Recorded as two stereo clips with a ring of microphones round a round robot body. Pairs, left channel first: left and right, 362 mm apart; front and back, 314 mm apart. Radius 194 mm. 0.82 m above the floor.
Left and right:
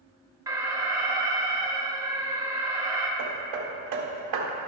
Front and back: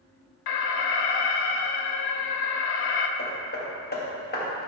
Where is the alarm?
10° right, 0.7 m.